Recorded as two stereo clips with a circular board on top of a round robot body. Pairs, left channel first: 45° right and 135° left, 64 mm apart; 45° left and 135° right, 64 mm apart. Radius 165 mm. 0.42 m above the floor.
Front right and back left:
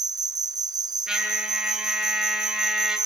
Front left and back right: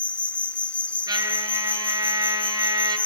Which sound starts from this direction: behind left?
An insect, at 0.0 s.